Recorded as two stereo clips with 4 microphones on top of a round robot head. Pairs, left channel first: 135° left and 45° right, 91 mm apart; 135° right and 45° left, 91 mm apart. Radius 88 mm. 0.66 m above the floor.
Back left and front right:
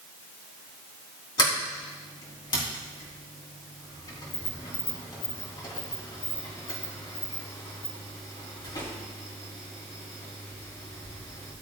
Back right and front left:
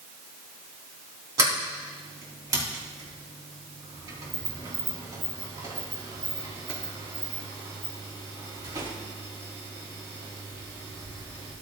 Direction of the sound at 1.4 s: 95° left.